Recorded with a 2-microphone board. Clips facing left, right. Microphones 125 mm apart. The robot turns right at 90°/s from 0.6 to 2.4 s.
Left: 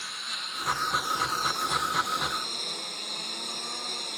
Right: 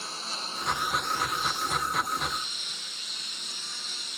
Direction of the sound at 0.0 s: 30° right (ahead or behind).